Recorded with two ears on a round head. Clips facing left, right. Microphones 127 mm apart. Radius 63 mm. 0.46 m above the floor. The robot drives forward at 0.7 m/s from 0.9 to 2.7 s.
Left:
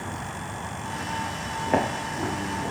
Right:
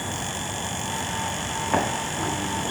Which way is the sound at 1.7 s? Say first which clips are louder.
Left 1 dB; 40° left (ahead or behind).